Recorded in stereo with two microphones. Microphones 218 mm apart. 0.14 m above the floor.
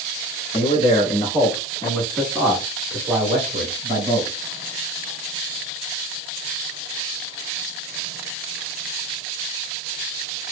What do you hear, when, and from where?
0.5 s a man speaking: 30° left (ahead or behind), 1.7 m; by 4.4 s 35° right (ahead or behind), 1.9 m